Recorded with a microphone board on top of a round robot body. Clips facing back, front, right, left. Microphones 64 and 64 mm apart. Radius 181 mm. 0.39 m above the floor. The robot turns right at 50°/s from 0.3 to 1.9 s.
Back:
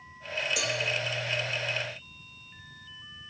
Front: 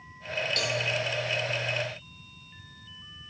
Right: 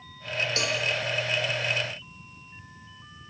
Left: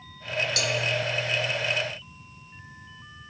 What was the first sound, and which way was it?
A cowbell, 105° right.